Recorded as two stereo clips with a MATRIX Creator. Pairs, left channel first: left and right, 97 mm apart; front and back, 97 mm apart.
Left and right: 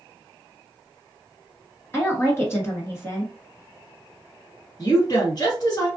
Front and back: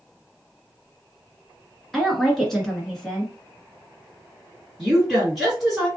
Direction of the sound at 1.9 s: 80° left.